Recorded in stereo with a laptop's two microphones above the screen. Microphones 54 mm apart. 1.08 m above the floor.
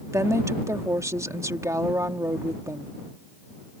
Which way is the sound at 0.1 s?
70° right (ahead or behind).